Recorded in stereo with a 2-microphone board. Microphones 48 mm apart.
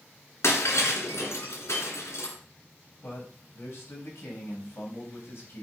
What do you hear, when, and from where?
0.4 s breaking glass: 80° left, 2.5 m
3.0 s a man speaking: 60° left (ahead or behind), 3.5 m